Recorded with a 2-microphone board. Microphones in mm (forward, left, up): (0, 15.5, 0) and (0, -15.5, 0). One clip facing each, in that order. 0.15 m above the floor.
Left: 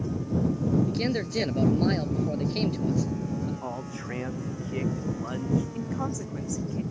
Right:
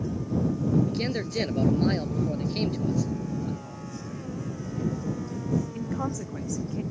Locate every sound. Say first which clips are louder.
0.8 s a man speaking: left 1 dB; centre (ahead or behind)
3.6 s a man speaking: left 4 dB; 60° left (ahead or behind)
5.8 s a woman speaking: right 1 dB; 5° right (ahead or behind)